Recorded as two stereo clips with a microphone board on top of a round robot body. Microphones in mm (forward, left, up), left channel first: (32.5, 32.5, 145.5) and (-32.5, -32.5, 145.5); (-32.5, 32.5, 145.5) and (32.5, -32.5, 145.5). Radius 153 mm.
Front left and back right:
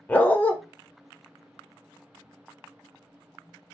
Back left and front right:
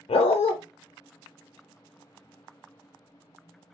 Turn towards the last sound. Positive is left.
turn(degrees=120)